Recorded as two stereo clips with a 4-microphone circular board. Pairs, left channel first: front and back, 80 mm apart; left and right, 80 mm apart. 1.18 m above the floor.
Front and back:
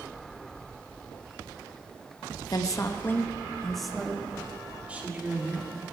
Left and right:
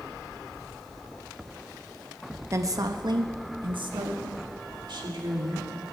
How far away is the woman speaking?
About 1.1 m.